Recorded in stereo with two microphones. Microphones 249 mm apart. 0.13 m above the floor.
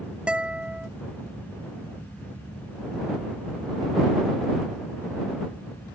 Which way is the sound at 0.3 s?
5° right (ahead or behind).